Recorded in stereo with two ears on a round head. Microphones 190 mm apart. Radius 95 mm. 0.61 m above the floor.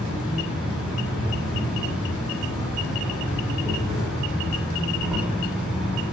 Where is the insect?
5° right (ahead or behind), 1.6 m.